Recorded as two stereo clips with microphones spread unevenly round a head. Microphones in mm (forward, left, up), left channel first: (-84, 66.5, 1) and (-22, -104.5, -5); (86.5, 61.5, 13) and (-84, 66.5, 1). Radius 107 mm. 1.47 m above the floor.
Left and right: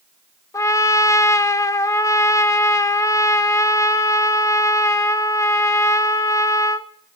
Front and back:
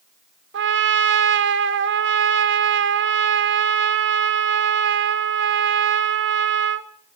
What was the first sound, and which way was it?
A trumpet, straight behind.